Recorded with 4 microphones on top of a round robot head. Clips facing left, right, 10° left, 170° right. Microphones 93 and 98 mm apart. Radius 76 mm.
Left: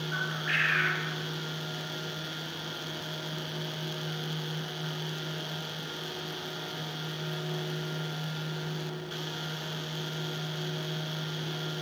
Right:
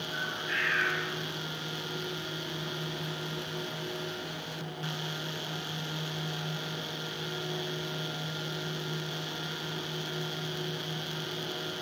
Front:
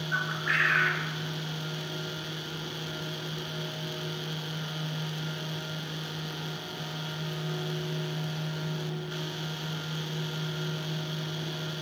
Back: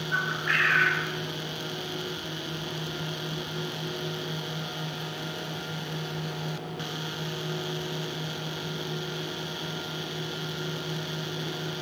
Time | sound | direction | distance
0.1 | a bird | 95° left | 0.8 m